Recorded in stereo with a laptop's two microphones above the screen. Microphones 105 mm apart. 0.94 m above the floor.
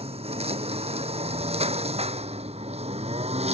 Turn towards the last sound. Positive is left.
turn(degrees=-85)